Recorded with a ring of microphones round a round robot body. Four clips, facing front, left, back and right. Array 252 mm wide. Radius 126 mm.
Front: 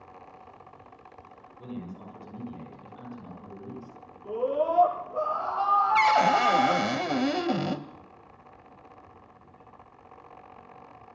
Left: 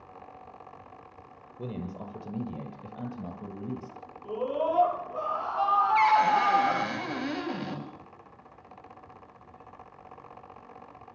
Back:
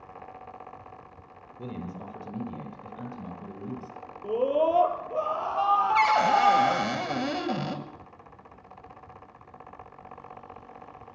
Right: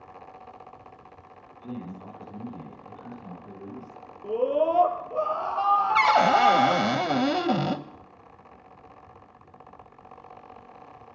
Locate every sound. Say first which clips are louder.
1.6 s a man speaking: left 1 dB, back 2 dB; 115° left, 10 m; by 4.0 s 110° left, 9 m
4.2 s a scream: right 5 dB, back 3 dB; 140° right, 9.5 m
6.0 s a cupboard door: right 2 dB, front 1 dB; 80° right, 1.7 m